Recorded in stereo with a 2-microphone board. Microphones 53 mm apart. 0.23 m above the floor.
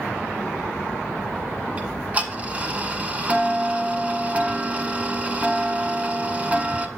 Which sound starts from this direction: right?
Ticking, at 1.8 s.